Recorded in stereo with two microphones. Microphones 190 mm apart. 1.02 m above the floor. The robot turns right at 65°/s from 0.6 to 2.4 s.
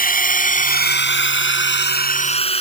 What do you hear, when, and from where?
0.0 s a drone: 45° left (ahead or behind); by 2.6 s 30° left (ahead or behind)